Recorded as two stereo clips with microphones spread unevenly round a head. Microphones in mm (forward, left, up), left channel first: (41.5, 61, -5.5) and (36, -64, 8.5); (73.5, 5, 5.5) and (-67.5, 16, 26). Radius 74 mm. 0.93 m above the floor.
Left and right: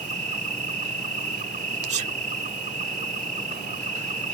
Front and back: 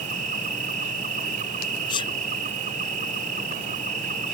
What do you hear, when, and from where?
0.0 s an insect: 140° right
1.9 s a sneeze: 60° right